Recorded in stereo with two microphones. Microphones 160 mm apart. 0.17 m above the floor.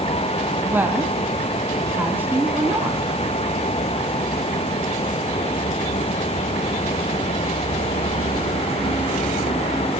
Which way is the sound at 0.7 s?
10° right (ahead or behind).